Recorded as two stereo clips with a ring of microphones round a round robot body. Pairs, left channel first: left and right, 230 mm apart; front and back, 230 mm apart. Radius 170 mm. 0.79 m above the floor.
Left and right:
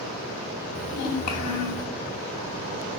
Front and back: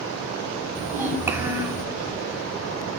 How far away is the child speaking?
About 5 m.